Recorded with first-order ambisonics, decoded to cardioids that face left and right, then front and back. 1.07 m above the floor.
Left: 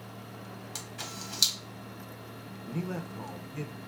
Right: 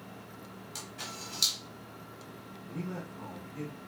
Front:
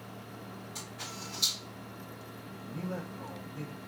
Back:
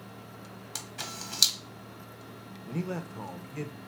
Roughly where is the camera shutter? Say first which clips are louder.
Left 1 dB, back 4 dB; behind left.